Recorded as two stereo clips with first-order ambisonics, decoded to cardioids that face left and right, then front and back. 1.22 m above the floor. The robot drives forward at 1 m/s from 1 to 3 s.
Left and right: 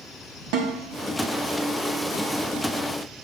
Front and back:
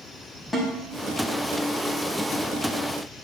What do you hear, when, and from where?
0.5 s a snare drum: 80° right, 2 m